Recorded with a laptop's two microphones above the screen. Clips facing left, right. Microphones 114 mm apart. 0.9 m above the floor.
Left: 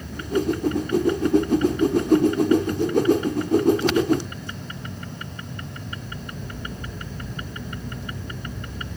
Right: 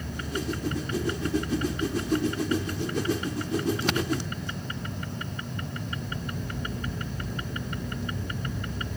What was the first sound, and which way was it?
A whoosh, 50° left (ahead or behind).